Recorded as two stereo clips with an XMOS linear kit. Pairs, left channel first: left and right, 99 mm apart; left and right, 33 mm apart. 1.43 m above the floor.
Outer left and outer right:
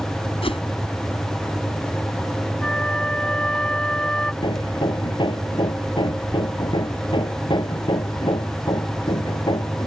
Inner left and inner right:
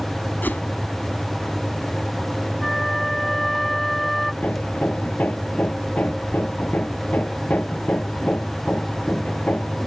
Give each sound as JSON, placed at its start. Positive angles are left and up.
{"t": 0.4, "sound": "a whoosh", "side_deg": 80}
{"t": 2.6, "sound": "a flute", "side_deg": 10}
{"t": 4.4, "sound": "hammering", "side_deg": 55}